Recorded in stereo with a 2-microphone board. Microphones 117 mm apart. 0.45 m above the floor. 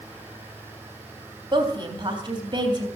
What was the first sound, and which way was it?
A woman speaking, 40° right (ahead or behind).